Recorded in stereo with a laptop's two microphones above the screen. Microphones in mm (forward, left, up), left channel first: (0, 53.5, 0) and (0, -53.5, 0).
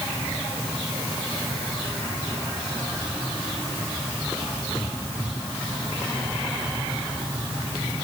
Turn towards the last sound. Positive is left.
No sound to turn to.